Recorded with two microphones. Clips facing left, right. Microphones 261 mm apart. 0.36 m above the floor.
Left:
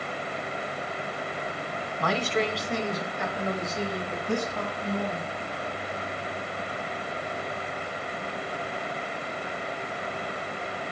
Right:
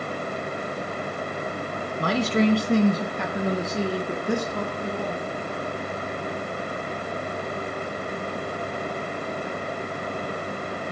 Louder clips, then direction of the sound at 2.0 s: Right 6 dB; 35° right (ahead or behind).